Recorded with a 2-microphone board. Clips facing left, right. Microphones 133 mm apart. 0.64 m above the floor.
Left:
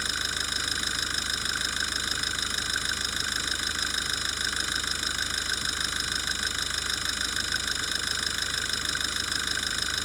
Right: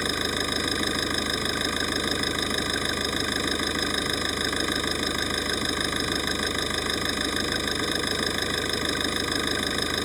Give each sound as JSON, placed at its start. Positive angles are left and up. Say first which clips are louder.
{"t": 0.0, "sound": "an engine running", "louder": "right 9 dB", "side_deg": -55}